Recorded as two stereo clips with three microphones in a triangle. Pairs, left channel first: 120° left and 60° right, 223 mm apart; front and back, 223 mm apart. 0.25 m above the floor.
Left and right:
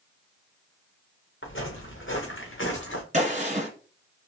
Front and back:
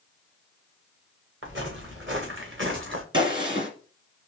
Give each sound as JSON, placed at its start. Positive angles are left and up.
{"t": 1.4, "sound": "footsteps", "azimuth_deg": 150, "distance_m": 2.5}
{"t": 3.1, "sound": "a gunshot", "azimuth_deg": -115, "distance_m": 1.6}